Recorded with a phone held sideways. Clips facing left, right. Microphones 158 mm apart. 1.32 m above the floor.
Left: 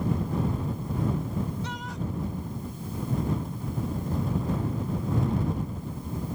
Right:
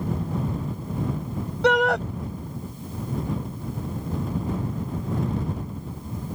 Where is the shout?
80° right.